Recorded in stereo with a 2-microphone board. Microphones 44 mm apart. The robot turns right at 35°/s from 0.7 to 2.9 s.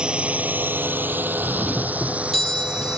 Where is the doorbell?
30° right; by 3.0 s 20° left.